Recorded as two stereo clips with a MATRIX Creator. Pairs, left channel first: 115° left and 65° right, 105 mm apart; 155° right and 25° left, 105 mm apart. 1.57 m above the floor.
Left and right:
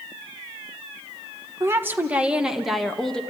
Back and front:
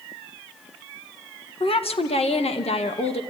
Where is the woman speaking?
135° right, 1.5 m; by 3.2 s 165° right, 1.9 m.